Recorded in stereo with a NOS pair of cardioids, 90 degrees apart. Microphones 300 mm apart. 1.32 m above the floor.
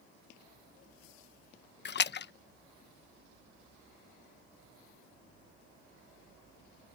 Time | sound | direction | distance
1.9 | a splash | 35° left | ?